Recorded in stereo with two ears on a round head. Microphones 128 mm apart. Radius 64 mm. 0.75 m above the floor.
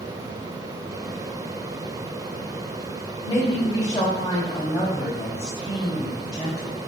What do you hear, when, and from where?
3.2 s a woman speaking: 25° left (ahead or behind), 1.3 m